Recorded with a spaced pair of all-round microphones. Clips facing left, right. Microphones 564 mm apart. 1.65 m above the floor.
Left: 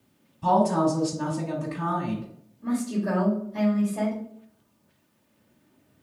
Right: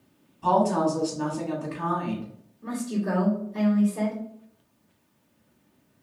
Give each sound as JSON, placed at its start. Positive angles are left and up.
{"t": 0.4, "sound": "a woman speaking", "side_deg": 45, "distance_m": 1.0}
{"t": 2.6, "sound": "a woman speaking", "side_deg": 15, "distance_m": 1.5}